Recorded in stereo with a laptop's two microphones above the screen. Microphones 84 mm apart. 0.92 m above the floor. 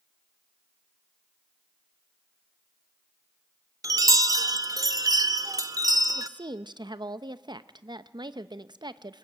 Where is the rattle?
I don't hear a rattle.